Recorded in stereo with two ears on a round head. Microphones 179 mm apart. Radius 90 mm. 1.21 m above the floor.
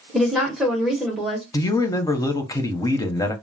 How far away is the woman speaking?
About 1.1 m.